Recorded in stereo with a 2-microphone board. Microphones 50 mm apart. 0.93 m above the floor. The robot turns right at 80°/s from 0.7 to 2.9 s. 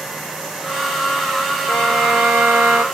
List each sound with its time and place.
1.7 s a violin: 160° left, 1.7 m; by 2.8 s 110° right, 1.7 m